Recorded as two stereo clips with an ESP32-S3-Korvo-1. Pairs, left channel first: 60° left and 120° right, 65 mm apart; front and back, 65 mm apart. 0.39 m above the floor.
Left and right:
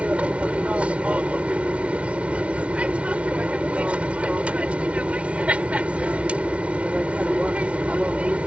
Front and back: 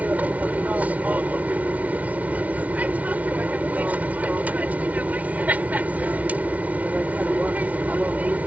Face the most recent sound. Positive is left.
turn(degrees=-160)